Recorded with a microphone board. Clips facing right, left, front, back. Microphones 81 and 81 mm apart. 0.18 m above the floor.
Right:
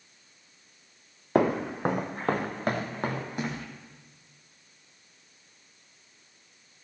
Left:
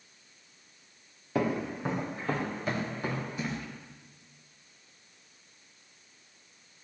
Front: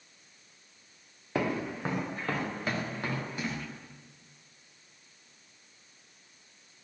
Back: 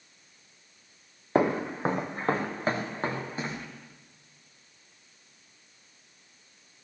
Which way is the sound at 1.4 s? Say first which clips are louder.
Right 5 dB, back 6 dB; 125° right.